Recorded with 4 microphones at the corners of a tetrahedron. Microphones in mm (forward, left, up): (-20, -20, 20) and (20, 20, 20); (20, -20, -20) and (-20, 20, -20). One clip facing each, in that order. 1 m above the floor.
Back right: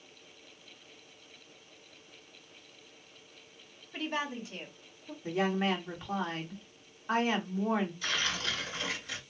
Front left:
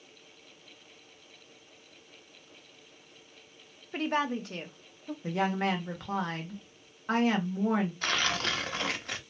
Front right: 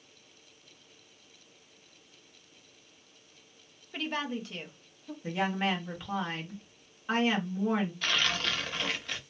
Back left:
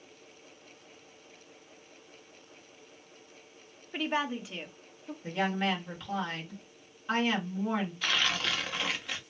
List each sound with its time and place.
3.9 s a woman speaking: 65° left, 0.8 m; by 5.1 s 55° left, 1.5 m
5.2 s a woman speaking: 35° left, 1.6 m
8.0 s tearing paper: 50° left, 0.8 m